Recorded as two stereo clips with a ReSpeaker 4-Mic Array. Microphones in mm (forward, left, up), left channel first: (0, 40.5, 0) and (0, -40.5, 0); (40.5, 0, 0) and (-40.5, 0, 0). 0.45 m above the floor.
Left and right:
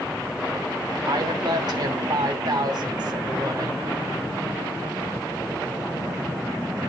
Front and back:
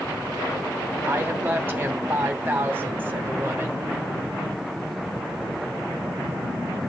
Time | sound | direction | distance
1.1 | a woman speaking | 115° right | 2.5 m